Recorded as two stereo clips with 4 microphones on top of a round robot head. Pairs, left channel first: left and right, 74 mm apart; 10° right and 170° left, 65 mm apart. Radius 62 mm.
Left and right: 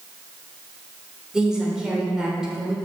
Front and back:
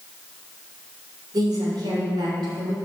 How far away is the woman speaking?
About 3.5 m.